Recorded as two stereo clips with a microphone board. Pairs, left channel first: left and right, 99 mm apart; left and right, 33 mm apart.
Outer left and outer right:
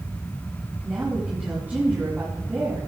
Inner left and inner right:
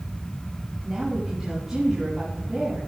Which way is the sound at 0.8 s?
20° right (ahead or behind).